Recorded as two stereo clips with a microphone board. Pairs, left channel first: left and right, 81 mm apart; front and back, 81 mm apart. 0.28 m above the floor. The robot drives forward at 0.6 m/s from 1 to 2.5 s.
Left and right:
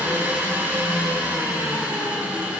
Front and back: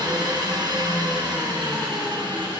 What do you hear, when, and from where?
0.0 s an engine running: 155° right, 2 m; by 2.6 s 165° right, 3 m